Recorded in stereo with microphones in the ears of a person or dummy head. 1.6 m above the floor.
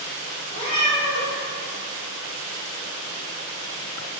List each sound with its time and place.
0.5 s a cat meowing: 40° left (ahead or behind), 1.5 m